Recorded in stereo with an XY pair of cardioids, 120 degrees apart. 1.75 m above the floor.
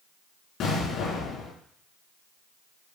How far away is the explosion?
About 3.5 m.